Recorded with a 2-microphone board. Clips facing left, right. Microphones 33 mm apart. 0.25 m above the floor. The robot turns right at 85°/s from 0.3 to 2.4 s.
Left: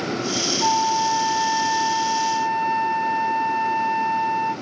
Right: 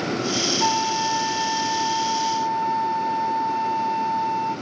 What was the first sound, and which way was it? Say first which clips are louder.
A flute: left 4 dB; 80° right.